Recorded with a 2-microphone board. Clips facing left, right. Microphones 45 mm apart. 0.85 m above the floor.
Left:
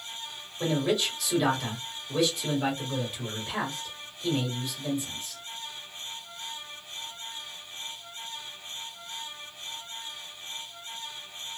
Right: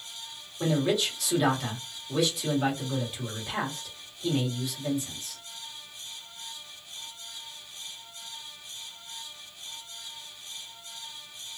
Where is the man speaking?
Centre (ahead or behind), 1.7 m.